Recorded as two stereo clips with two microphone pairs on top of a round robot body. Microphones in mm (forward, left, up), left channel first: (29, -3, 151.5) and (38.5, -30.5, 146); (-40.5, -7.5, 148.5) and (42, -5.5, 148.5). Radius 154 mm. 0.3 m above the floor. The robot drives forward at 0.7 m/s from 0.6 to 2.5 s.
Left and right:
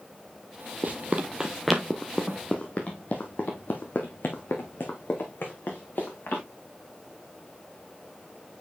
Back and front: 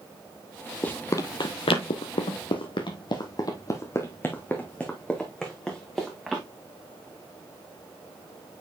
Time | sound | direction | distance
0.8 | running footsteps | 105° right | 0.6 m